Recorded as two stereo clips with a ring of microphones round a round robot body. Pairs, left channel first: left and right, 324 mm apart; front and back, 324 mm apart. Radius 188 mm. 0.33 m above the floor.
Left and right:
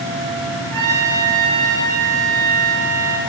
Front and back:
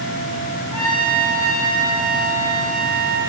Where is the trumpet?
105° right, 6 m.